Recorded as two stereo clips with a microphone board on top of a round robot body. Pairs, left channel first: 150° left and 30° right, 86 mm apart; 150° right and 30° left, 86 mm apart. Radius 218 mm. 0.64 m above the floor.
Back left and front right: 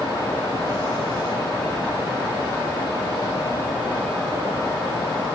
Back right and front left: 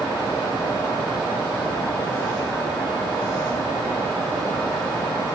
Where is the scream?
I don't hear a scream.